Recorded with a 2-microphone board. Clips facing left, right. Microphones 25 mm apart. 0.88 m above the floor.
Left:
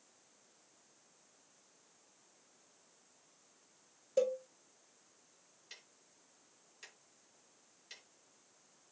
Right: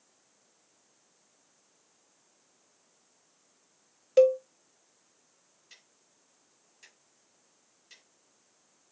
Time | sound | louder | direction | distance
4.2 | a cowbell | right 12 dB | 55° right (ahead or behind) | 0.7 m
5.7 | ticking | left 2 dB | 20° left (ahead or behind) | 2.5 m